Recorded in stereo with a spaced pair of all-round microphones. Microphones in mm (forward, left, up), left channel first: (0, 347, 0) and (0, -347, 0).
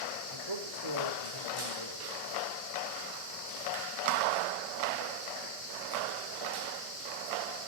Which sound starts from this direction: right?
A man speaking, at 0.3 s.